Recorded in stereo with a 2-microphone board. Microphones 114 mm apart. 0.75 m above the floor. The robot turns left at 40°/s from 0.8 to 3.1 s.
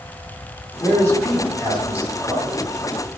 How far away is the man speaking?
About 5.5 m.